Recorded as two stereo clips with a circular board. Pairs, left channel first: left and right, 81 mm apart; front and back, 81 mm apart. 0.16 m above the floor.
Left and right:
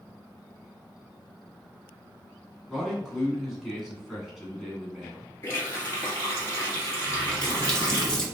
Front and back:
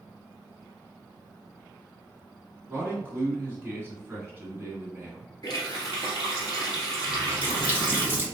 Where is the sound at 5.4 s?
35° left, 2 m.